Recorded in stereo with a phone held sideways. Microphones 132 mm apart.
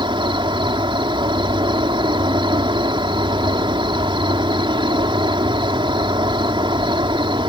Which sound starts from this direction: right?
An insect, at 0.0 s.